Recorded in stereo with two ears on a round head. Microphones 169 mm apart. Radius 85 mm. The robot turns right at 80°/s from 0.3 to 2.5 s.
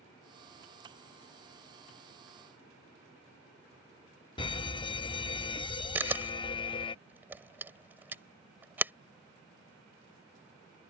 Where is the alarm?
25° left (ahead or behind).